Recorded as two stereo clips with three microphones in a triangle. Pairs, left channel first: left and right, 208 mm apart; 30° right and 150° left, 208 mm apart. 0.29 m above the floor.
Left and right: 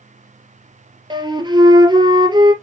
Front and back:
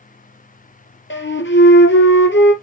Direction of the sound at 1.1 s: 20° right.